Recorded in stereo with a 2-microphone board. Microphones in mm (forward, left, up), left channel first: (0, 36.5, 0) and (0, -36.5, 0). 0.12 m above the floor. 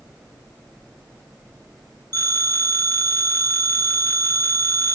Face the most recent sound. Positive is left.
turn(degrees=25)  # may be behind; listen again after turning